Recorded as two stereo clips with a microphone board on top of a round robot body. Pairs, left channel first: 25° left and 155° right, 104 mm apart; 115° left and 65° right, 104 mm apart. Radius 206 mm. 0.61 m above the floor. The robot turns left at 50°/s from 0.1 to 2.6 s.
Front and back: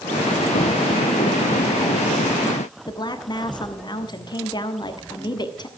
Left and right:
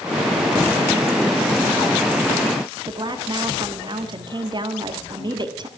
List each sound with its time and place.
2.9 s a woman speaking: 25° right, 1.5 m